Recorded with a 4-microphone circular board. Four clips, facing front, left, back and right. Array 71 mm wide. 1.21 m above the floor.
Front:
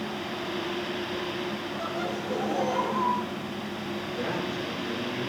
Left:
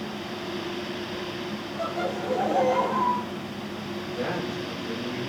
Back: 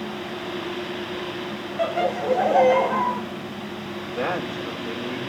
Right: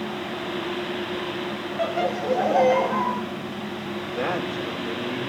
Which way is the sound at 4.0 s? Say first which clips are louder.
Right 3 dB, back 6 dB; 140° right.